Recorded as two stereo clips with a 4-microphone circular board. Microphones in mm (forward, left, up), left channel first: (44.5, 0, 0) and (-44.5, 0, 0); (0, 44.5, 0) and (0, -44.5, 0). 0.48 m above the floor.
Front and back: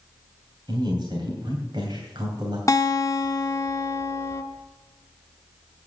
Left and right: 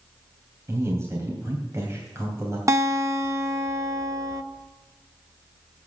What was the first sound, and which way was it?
A man speaking, 145° right.